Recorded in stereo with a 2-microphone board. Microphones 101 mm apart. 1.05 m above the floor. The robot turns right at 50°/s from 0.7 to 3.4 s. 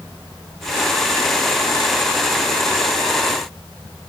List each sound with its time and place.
Only background noise.